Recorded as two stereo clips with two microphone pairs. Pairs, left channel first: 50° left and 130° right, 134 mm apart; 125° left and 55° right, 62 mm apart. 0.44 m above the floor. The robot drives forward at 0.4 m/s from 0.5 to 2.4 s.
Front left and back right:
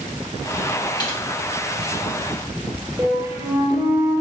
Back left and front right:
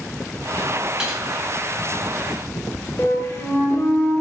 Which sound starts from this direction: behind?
A flute, at 3.0 s.